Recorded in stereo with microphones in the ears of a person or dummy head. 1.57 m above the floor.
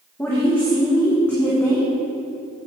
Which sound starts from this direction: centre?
A woman speaking, at 0.2 s.